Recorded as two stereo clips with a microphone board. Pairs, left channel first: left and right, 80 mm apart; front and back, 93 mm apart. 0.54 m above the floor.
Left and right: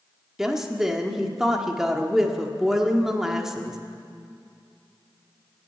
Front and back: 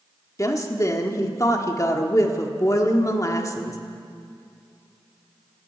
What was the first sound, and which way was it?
A woman speaking, 10° right.